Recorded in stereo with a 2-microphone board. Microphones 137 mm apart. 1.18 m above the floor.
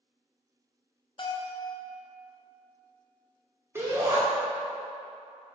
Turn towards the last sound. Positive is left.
turn(degrees=-15)  # may be behind; listen again after turning